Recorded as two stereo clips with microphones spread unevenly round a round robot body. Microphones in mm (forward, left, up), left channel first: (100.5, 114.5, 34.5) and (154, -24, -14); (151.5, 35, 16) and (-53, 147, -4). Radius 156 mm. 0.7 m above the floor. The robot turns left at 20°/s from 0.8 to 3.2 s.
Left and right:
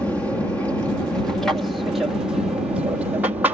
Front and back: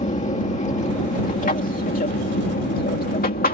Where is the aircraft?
10° left; by 3.5 s 40° right.